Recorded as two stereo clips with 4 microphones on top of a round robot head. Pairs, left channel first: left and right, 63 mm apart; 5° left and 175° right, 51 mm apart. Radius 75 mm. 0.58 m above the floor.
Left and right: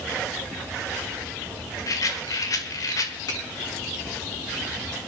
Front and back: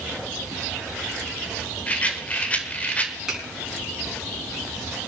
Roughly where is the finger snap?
Left.